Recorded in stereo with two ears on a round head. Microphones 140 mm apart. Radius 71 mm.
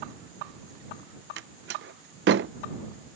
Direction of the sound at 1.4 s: 80° right.